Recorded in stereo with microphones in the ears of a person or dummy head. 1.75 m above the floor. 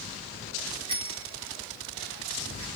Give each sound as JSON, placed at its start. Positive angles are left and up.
{"t": 0.9, "sound": "a bicycle bell", "side_deg": -30, "distance_m": 2.0}